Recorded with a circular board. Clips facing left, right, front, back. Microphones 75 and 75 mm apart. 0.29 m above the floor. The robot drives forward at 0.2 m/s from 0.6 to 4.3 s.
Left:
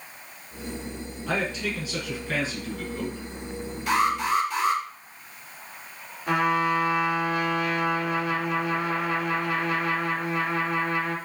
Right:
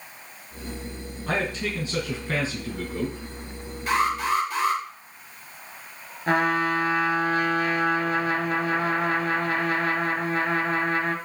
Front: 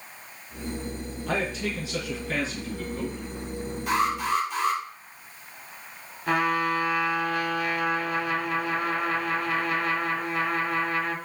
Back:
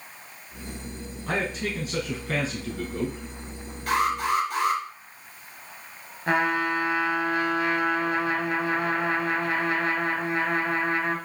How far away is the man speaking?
About 3.5 m.